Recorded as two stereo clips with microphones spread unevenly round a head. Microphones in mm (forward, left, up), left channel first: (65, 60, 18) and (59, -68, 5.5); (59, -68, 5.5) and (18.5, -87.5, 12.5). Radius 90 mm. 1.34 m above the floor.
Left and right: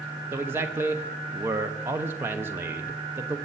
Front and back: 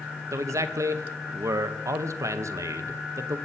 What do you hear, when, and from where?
0.3 s a man speaking: 165° right, 0.7 m